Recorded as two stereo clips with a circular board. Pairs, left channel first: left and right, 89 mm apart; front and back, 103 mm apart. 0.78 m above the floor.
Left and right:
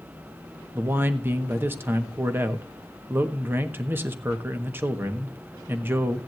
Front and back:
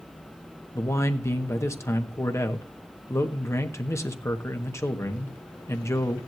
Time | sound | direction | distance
0.8 | a man speaking | 40° right | 1.3 m